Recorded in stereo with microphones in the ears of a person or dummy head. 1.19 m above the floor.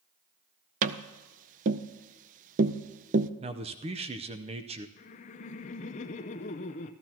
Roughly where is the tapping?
Right.